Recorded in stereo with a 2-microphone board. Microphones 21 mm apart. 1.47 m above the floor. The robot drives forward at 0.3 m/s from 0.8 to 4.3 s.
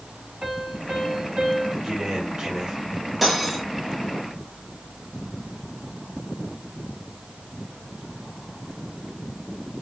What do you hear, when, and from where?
0.4 s a piano: 45° right (ahead or behind), 3 m; by 1.7 s 40° right (ahead or behind), 3 m
1.8 s a man speaking: 40° right (ahead or behind), 2.5 m; by 2.8 s 35° right (ahead or behind), 2.5 m
3.2 s cutlery clinking: 5° right (ahead or behind), 1.3 m